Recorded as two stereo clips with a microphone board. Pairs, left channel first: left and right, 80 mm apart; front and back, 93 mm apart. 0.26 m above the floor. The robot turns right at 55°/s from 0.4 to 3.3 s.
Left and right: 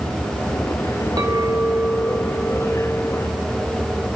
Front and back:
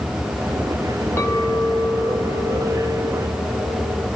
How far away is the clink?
About 1.8 m.